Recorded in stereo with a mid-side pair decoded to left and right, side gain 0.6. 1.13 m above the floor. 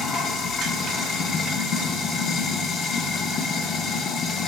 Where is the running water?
50° left, 0.9 m.